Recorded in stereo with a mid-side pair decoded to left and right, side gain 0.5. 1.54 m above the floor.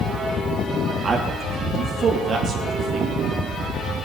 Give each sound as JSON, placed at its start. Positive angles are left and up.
{"t": 1.0, "sound": "a man speaking", "azimuth_deg": -40, "distance_m": 3.0}